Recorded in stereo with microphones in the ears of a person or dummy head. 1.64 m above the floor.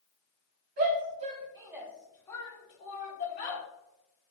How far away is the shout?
About 1.0 m.